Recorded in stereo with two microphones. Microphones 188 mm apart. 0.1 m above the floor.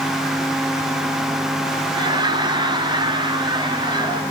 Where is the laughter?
20° right (ahead or behind), 1.3 m.